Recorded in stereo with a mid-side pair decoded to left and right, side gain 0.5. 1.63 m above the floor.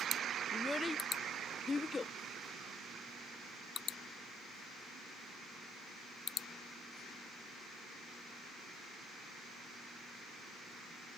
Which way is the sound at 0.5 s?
15° left.